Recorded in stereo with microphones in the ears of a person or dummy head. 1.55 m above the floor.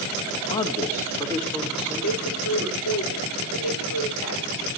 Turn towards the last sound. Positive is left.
turn(degrees=80)